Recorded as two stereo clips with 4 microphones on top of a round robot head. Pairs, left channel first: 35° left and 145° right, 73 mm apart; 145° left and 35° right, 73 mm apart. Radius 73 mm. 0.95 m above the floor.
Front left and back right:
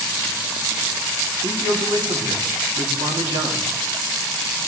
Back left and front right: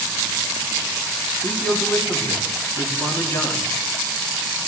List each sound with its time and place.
1.4 s a man speaking: 150° right, 2.5 m